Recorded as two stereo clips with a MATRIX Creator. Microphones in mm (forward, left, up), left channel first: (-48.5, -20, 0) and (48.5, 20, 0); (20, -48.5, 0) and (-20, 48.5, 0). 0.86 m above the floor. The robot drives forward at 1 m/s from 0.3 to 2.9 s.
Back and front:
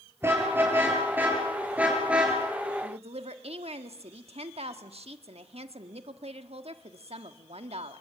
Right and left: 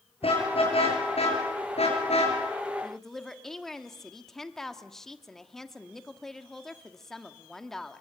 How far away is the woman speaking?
About 1.7 m.